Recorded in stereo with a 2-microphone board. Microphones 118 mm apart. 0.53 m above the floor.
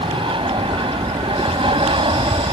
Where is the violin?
No violin in this recording.